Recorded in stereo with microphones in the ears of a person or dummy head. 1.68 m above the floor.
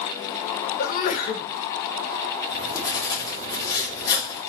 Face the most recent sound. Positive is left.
turn(degrees=30)  # may be behind; listen again after turning